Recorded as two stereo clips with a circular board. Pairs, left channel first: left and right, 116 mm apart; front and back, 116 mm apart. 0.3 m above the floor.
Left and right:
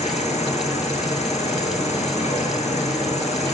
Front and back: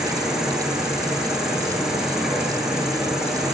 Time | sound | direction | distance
0.0 | an insect | 95° left | 6.5 m